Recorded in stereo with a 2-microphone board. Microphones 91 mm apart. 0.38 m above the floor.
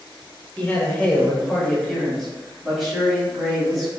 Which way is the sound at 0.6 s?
20° left (ahead or behind).